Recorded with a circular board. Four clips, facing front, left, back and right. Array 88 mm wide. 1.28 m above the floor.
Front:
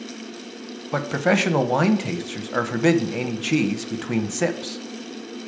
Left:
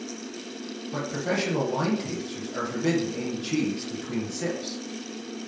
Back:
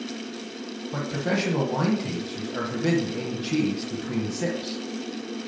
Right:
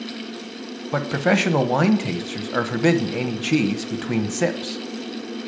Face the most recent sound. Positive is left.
turn(degrees=-50)